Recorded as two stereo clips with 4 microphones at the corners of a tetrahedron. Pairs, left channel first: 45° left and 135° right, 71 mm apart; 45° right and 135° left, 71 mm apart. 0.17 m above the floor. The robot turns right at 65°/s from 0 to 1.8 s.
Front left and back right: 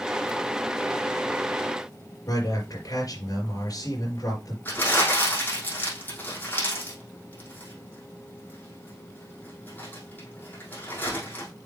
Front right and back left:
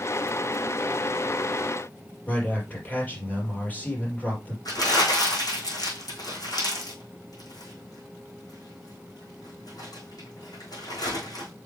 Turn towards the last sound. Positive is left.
turn(degrees=-20)